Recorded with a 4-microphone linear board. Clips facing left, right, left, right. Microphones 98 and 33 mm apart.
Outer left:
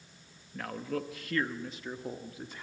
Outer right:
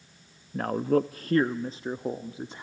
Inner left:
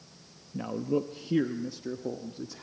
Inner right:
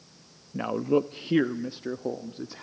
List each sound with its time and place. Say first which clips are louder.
0.5 s a man speaking: outer right 11 dB, inner right 5 dB; 40° right (ahead or behind), 0.6 m; by 2.6 s 25° right (ahead or behind), 1.3 m